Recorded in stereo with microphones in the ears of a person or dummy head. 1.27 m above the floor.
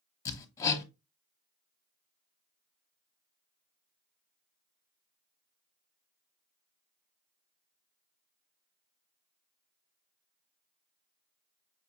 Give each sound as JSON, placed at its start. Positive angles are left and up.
{"t": 0.2, "sound": "hammering", "side_deg": 20, "distance_m": 0.9}